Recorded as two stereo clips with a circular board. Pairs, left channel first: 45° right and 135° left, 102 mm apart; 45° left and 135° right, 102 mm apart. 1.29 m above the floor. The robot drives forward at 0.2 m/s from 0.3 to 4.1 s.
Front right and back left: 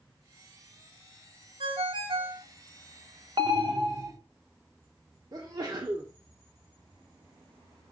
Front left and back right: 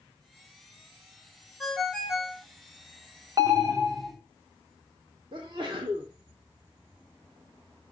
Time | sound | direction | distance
1.6 | a ringtone | 135° left | 1.0 m
3.4 | an alarm | 170° left | 1.4 m
5.3 | a sneeze | 175° right | 0.9 m